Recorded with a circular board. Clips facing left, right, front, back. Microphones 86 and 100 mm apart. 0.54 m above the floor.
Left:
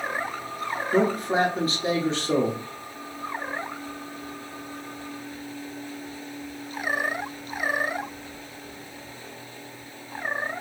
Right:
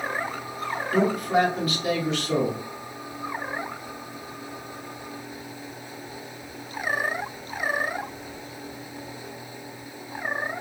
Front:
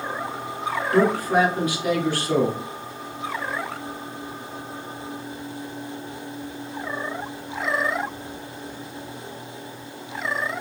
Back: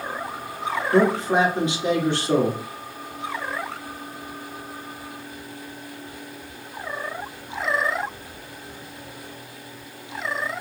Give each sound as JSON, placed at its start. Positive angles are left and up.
{"t": 0.9, "sound": "a man speaking", "azimuth_deg": 130, "distance_m": 1.0}